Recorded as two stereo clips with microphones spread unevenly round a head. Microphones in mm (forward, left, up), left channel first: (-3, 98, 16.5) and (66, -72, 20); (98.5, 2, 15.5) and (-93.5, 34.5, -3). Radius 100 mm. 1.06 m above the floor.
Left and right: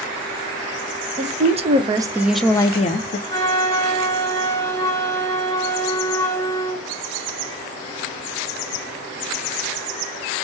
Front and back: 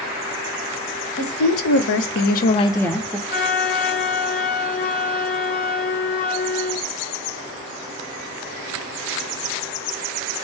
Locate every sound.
1.2 s a woman speaking: 20° right, 1.0 m; by 3.2 s 95° left, 0.6 m
3.3 s a flute: 40° left, 0.9 m